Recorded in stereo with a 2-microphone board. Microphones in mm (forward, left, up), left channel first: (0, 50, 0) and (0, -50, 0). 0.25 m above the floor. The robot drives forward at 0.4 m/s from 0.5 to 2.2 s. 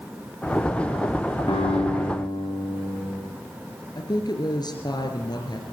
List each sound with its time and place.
1.5 s a guitar: 55° left (ahead or behind), 9.5 m
4.0 s a woman speaking: 45° left (ahead or behind), 3.5 m